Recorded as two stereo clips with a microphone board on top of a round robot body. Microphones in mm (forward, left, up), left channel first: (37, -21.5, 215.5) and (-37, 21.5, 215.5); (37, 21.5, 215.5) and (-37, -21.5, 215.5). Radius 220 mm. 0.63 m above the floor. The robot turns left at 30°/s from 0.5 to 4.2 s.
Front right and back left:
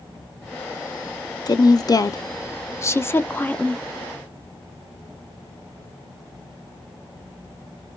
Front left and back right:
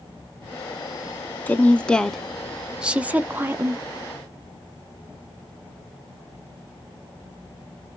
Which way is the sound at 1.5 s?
35° right.